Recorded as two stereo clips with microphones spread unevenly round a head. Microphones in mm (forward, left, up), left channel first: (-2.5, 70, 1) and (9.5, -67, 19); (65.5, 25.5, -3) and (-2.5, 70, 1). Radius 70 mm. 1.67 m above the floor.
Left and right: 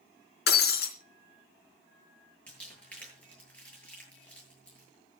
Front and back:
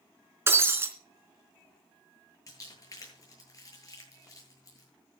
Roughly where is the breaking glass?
Left.